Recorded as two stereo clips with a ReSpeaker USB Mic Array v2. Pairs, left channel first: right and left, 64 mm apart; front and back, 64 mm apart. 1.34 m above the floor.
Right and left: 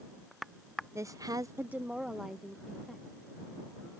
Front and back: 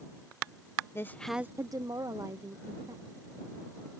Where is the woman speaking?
50° left; by 3.0 s 175° right.